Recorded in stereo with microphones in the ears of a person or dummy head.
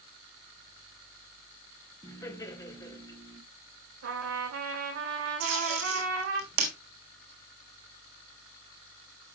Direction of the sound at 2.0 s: 15° left (ahead or behind).